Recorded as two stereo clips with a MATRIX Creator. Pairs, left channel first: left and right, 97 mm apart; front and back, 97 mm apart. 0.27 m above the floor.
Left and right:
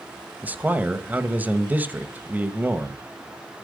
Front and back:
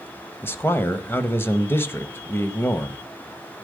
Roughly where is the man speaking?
Ahead right.